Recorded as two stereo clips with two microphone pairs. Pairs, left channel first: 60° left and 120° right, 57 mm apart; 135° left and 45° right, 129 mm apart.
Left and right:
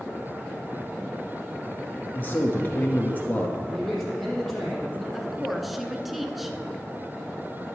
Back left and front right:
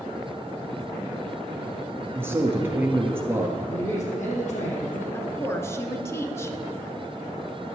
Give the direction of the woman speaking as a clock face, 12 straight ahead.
7 o'clock.